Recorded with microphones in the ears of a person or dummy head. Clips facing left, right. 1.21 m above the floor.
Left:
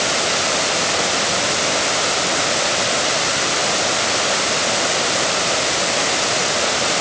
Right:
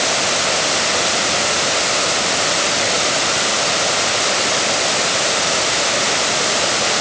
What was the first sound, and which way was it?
Only background noise.